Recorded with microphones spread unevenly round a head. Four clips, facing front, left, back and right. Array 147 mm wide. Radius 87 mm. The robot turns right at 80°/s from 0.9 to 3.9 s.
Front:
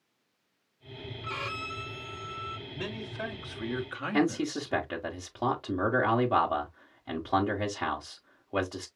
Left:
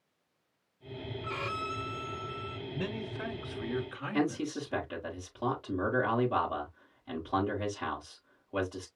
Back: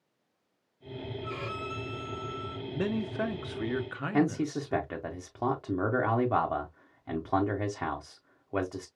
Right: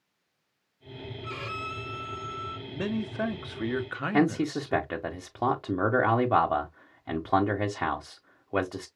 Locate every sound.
1.2 s a violin: 15° left, 2.5 m; by 2.6 s 120° left, 2.5 m
2.7 s a man speaking: 175° right, 1.5 m; by 4.9 s 75° right, 1.5 m
4.1 s a man speaking: 70° right, 1.4 m